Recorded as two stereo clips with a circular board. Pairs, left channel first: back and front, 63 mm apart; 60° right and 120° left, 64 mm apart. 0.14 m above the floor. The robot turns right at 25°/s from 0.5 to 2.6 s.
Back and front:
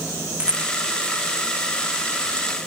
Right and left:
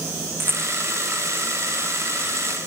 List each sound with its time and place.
0.4 s a rattle: 65° left; by 0.7 s 70° left